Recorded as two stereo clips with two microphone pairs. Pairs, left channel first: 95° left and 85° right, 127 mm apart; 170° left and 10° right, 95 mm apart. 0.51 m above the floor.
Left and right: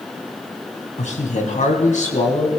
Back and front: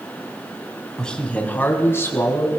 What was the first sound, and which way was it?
A man speaking, 85° left.